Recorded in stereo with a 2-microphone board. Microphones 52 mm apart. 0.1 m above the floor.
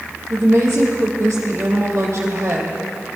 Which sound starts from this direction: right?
A woman speaking, at 0.3 s.